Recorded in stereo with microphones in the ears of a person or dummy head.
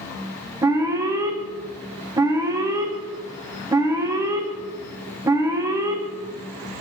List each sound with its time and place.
0.6 s an alarm: 15° right (ahead or behind), 0.7 m